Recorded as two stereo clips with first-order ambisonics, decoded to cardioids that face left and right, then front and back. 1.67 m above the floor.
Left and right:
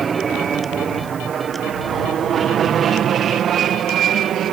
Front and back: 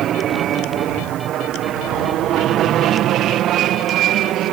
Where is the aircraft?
150° right; by 4.5 s 140° right.